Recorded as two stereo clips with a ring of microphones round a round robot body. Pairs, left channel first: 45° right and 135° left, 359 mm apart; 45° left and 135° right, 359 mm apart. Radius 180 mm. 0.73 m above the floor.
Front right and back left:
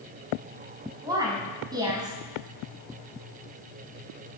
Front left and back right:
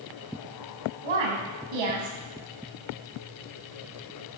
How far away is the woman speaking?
About 5 m.